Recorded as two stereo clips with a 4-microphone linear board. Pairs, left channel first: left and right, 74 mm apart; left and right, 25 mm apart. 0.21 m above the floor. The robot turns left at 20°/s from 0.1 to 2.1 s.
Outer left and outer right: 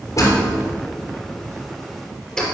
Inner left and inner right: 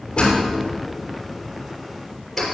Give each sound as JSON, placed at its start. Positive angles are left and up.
{"t": 0.2, "sound": "a door slam", "side_deg": 45, "distance_m": 3.5}